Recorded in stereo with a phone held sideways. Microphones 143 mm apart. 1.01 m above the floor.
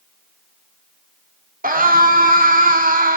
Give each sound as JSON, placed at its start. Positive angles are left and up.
{"t": 1.6, "sound": "a scream", "side_deg": -80, "distance_m": 2.0}